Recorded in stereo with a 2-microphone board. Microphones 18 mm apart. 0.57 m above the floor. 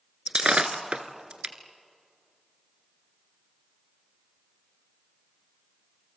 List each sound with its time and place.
0.3 s breaking glass: 80° right, 1.6 m